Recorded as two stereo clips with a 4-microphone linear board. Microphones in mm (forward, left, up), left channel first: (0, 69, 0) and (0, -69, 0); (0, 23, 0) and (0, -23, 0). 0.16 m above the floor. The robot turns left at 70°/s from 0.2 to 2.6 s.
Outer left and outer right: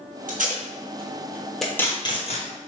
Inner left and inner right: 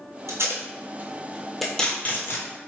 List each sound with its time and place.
0.3 s tape being pulled: 80° right, 1.0 m; by 2.5 s 60° left (ahead or behind), 1.0 m